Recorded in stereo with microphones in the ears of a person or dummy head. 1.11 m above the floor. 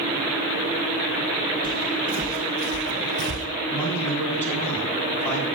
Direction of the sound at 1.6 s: 5° left (ahead or behind).